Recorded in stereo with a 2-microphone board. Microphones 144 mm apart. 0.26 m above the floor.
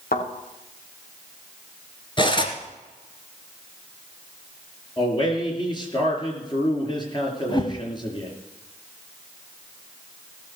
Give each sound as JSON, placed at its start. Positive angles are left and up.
{"t": 0.1, "sound": "a thud", "side_deg": 80, "distance_m": 4.5}
{"t": 2.2, "sound": "cutlery clinking", "side_deg": 35, "distance_m": 2.0}
{"t": 5.0, "sound": "a man speaking", "side_deg": 30, "distance_m": 4.0}
{"t": 7.5, "sound": "a whoosh", "side_deg": 30, "distance_m": 1.5}